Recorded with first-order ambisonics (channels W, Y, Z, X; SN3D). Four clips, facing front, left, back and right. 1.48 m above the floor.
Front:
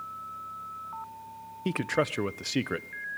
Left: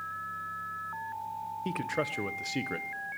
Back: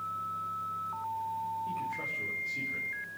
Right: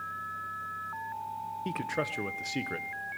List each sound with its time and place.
1.6 s a man speaking: 5° left, 0.7 m